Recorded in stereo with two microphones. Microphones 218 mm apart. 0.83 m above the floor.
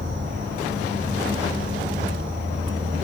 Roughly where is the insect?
Right.